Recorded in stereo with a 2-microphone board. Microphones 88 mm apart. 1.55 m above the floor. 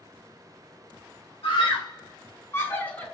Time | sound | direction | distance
1.4 | a scream | 70° left (ahead or behind) | 0.9 m